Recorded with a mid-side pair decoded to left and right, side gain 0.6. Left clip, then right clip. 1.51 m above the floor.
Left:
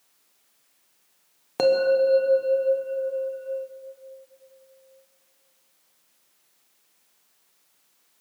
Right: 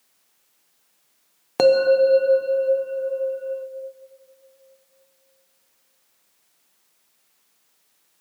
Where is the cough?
I don't hear a cough.